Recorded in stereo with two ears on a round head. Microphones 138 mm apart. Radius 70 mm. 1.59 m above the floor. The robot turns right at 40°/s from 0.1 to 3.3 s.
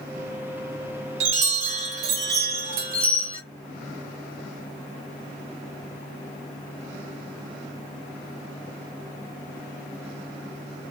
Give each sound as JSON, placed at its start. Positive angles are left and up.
{"t": 1.2, "sound": "a chime", "azimuth_deg": -130, "distance_m": 3.5}